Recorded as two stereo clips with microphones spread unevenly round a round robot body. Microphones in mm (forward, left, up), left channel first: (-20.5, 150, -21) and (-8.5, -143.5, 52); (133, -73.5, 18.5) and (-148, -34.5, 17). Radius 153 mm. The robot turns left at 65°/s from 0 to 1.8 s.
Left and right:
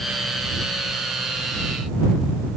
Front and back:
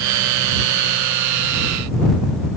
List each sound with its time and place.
Only background noise.